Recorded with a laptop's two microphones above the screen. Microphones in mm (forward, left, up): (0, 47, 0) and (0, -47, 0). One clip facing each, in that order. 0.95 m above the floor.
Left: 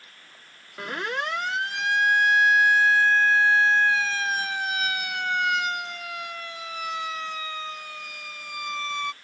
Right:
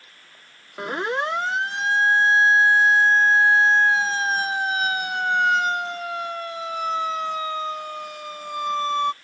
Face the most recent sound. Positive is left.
turn(degrees=-45)  # may be behind; listen again after turning